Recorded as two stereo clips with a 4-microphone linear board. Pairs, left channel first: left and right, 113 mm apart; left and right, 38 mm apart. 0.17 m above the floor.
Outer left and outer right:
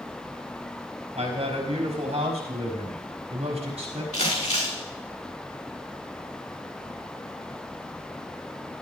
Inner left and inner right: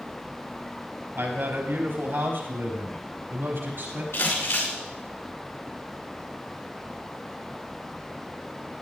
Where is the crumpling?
75° left (ahead or behind), 8.5 m.